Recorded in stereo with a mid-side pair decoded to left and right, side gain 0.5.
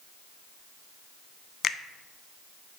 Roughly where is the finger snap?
Ahead left.